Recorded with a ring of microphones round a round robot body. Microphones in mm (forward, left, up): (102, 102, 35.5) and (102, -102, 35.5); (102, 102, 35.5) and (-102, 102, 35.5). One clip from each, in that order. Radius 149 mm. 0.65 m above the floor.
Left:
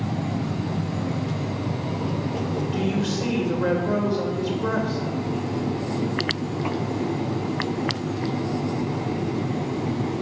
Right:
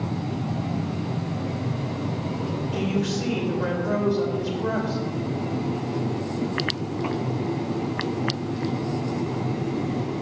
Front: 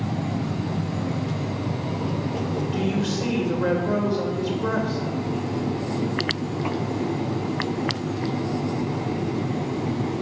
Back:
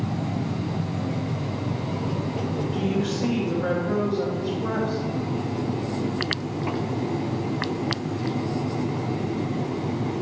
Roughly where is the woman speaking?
Ahead.